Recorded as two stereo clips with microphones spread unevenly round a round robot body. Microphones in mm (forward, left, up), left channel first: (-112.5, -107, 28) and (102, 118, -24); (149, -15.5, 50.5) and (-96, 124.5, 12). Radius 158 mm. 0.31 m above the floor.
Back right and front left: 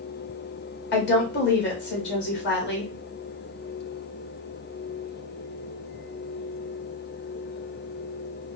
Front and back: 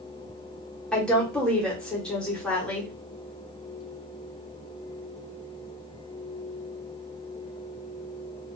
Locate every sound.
0.9 s a woman speaking: 130° right, 1.0 m